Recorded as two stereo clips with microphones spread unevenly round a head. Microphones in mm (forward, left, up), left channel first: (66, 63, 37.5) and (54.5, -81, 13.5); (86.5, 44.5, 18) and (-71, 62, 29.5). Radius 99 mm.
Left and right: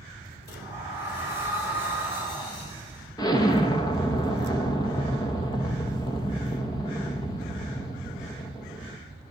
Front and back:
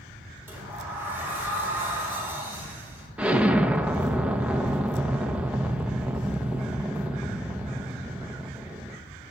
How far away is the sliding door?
About 6 m.